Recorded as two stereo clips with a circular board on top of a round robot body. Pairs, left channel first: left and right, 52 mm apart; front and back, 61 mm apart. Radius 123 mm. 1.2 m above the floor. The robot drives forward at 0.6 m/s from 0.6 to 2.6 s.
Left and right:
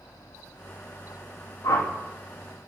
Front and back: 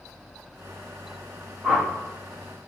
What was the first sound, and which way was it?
A whoosh, 100° left.